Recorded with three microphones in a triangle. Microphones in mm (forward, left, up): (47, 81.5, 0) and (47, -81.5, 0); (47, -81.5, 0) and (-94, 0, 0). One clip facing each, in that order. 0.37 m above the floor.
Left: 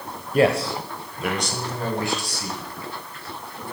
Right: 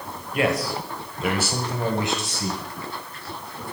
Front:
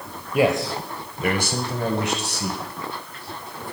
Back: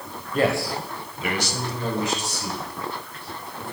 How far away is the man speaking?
About 1.3 m.